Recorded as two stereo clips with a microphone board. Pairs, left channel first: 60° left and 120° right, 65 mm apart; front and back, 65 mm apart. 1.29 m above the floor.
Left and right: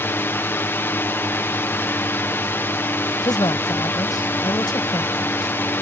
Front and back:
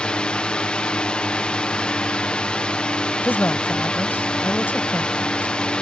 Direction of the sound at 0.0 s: 60° left.